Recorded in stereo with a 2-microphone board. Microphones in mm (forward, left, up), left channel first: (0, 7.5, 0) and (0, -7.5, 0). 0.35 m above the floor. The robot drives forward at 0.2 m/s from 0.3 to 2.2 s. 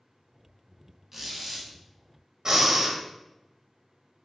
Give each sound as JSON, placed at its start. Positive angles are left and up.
{"t": 1.1, "sound": "a squeak", "side_deg": -15, "distance_m": 1.1}
{"t": 2.5, "sound": "breathing", "side_deg": -40, "distance_m": 0.9}